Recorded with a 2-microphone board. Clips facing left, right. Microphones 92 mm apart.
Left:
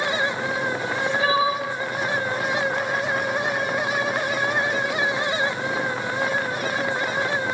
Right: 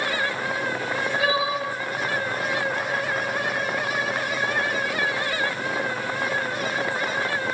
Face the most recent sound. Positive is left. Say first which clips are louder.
# left 1 dB
turn(degrees=25)  # may be behind; listen again after turning